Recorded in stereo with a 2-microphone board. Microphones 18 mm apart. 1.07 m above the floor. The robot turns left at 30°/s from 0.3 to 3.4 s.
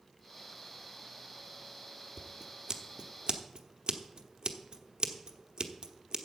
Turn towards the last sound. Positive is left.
turn(degrees=-60)  # may be behind; listen again after turning